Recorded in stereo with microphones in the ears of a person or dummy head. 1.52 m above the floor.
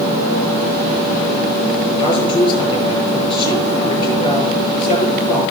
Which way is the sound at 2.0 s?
30° left (ahead or behind).